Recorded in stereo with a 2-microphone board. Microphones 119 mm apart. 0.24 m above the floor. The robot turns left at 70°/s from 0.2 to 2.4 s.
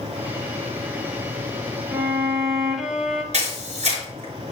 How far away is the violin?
About 1.2 m.